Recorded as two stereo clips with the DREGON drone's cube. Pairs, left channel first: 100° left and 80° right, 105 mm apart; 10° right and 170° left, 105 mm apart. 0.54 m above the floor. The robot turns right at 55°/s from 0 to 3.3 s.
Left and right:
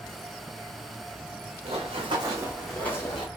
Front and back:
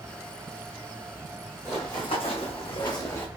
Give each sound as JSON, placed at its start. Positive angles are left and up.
{"t": 1.6, "sound": "running footsteps", "azimuth_deg": -80, "distance_m": 1.8}